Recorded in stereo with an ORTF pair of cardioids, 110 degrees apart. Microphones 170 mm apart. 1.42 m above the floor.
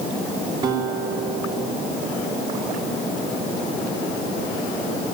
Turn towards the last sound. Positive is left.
turn(degrees=-30)